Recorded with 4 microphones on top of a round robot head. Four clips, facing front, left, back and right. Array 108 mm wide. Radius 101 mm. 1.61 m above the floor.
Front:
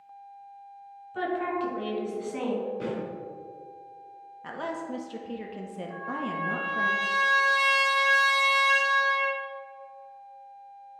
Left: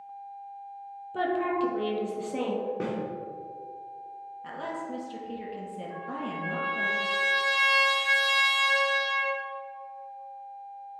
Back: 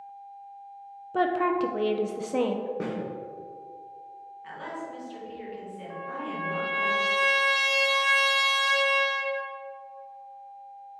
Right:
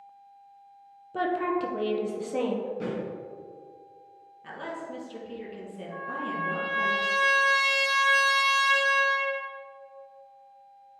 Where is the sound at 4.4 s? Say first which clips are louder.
Left 1 dB, front 4 dB; 5° left, 1.0 m.